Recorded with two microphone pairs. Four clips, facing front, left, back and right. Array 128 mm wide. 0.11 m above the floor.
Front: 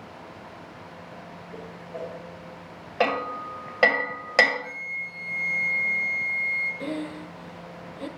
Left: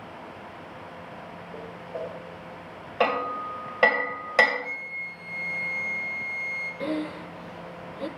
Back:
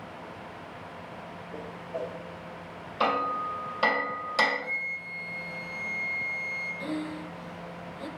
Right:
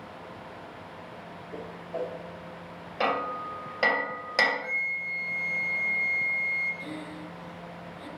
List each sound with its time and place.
1.5 s a whoosh: 90° right, 1.5 m
3.0 s hammering: 10° left, 1.8 m
4.6 s a flute: 85° right, 2.5 m
6.8 s breathing: 60° left, 0.6 m